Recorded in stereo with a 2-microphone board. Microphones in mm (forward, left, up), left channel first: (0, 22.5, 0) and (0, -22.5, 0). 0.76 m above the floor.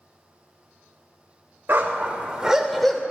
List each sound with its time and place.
1.7 s a dog barking: 50° right (ahead or behind), 1.0 m; by 3.0 s 10° left (ahead or behind), 0.9 m